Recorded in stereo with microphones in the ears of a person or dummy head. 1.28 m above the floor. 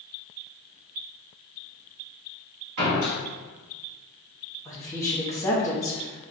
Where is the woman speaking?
15° left (ahead or behind), 0.6 m.